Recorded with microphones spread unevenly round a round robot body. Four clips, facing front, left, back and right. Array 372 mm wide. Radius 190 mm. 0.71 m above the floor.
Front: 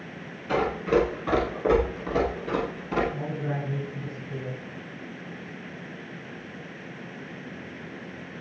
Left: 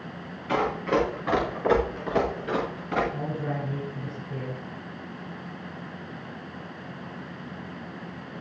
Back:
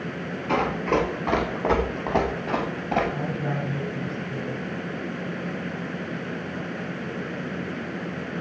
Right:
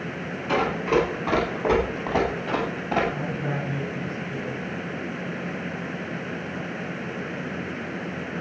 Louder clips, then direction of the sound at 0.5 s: Right 2 dB, even; 160° right.